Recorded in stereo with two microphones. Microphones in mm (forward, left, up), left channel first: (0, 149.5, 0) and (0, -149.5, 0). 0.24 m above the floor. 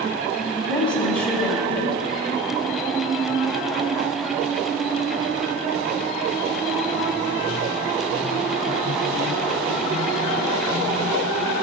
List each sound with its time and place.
0.7 s a woman speaking: 5° left (ahead or behind), 1.4 m